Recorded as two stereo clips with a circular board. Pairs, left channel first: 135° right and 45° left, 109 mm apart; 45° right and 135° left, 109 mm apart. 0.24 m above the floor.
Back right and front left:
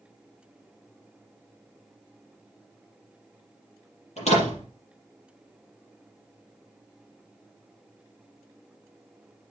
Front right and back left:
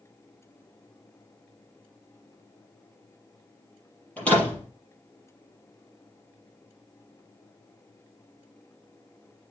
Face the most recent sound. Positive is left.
turn(degrees=-125)